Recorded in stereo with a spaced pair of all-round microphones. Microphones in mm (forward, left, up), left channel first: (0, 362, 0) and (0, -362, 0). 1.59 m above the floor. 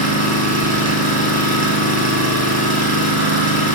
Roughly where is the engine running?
Right.